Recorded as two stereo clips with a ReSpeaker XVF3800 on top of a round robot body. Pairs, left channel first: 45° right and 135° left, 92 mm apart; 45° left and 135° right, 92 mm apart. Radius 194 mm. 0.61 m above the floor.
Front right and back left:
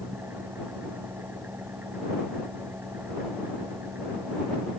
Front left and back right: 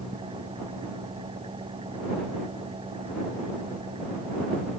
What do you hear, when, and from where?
0.0 s an engine running: 155° right